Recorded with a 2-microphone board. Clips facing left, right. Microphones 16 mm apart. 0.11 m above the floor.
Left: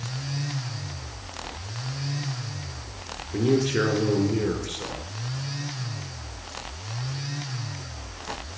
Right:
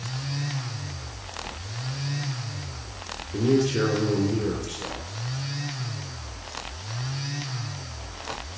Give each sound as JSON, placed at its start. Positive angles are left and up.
{"t": 3.3, "sound": "a man speaking", "side_deg": 30, "distance_m": 1.3}